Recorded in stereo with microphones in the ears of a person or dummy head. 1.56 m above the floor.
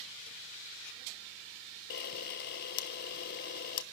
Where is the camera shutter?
45° left (ahead or behind), 1.1 m.